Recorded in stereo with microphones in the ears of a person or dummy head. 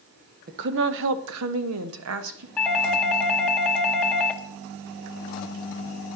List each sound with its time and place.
0.5 s a woman speaking: 50° right (ahead or behind), 0.8 m; by 2.5 s 65° right (ahead or behind), 1.2 m
2.6 s a doorbell: 10° left (ahead or behind), 0.9 m